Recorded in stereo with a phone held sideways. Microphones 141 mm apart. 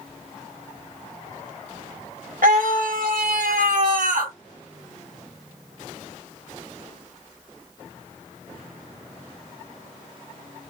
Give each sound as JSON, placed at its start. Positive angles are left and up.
{"t": 2.4, "sound": "a scream", "side_deg": -70, "distance_m": 1.3}